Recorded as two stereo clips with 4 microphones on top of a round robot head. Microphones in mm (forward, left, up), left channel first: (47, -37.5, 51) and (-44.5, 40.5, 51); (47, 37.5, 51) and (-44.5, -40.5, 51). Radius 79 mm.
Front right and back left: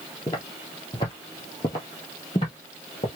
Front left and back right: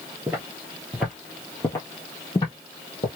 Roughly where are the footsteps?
Right.